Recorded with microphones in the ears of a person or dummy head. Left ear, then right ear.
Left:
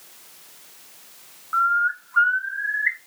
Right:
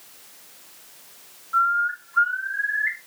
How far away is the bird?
About 1.0 m.